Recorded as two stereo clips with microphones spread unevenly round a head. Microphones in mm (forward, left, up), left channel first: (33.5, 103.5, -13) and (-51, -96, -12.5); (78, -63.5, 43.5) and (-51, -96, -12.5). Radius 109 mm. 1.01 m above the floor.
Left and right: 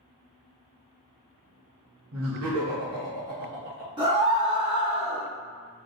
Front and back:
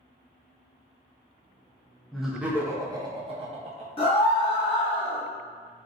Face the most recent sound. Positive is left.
turn(degrees=-45)